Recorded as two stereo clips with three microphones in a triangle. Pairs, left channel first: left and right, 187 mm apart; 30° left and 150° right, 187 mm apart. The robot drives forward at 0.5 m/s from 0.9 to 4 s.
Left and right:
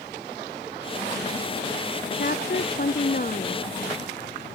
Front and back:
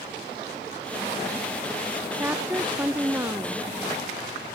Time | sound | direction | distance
2.2 | a woman speaking | 130° left | ?